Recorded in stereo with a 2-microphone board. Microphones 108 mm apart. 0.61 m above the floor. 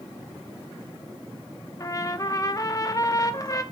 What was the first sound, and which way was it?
A trumpet, 35° left (ahead or behind).